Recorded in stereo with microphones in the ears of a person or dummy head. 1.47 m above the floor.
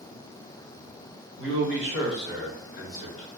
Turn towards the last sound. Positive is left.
turn(degrees=45)  # may be behind; listen again after turning